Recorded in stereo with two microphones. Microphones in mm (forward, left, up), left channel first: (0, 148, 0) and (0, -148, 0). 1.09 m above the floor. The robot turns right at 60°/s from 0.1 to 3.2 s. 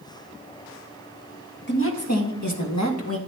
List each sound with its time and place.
1.7 s a woman speaking: 40° left, 1.6 m; by 3.2 s 130° left, 1.6 m